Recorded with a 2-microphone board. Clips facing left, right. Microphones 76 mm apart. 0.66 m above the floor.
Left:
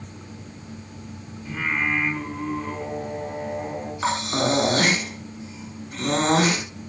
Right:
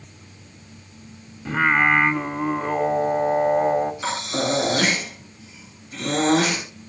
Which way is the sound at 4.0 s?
40° left (ahead or behind).